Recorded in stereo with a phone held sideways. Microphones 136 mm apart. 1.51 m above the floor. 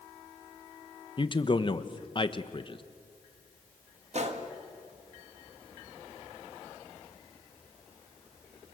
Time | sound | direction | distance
1.2 | a man speaking | 40° left (ahead or behind) | 1.1 m
4.1 | a gunshot | 55° right (ahead or behind) | 1.9 m